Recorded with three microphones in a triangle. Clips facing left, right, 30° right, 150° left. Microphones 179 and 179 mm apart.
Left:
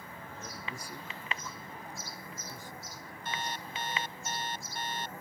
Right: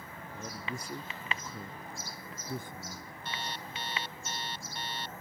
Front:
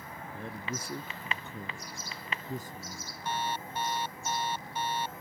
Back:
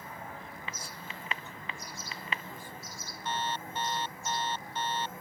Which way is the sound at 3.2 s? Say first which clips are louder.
Left 2 dB, front 1 dB; 50° left.